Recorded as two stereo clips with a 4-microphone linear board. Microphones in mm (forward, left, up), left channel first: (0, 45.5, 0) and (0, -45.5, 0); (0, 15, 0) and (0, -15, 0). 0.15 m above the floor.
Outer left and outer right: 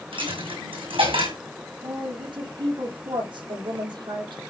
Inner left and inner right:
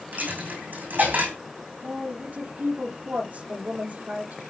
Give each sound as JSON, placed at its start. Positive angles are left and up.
{"t": 0.1, "sound": "a dropped coin", "side_deg": -80, "distance_m": 5.0}
{"t": 1.8, "sound": "a woman speaking", "side_deg": -60, "distance_m": 4.5}